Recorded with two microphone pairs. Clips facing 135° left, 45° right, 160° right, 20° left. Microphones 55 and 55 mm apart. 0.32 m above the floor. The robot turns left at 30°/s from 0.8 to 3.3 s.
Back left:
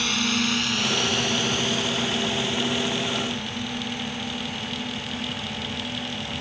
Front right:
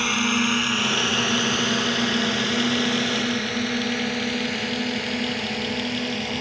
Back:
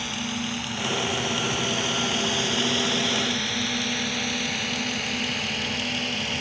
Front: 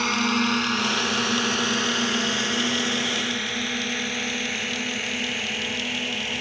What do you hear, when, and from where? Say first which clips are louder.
0.0 s a drone: front right 3 dB, front 8 dB; 20° left; by 6.4 s 55° right